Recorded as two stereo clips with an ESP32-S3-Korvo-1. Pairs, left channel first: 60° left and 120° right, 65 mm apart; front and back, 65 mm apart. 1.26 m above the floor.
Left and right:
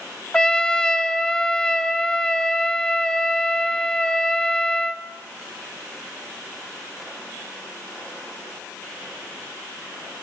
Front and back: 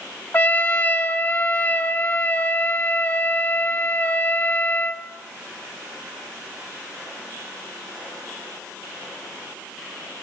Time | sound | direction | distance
0.3 | a trumpet | straight ahead | 1.0 m